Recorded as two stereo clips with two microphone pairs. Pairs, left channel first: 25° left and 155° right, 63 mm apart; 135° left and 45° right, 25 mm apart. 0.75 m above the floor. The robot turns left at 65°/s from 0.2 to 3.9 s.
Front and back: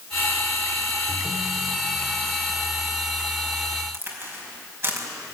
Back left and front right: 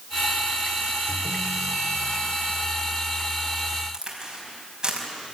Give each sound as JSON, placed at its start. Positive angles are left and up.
{"t": 1.1, "sound": "a ringtone", "azimuth_deg": 45, "distance_m": 1.1}
{"t": 3.9, "sound": "a crack", "azimuth_deg": -110, "distance_m": 5.0}